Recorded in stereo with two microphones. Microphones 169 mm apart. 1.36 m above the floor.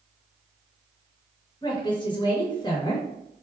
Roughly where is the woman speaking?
Left.